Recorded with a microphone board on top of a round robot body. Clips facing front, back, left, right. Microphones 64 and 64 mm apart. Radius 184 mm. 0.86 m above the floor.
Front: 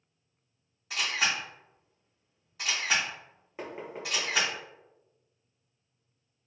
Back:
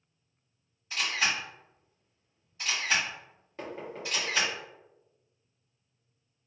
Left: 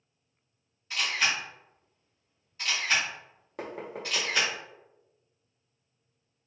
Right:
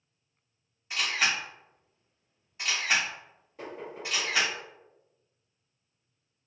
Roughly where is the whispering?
I don't hear whispering.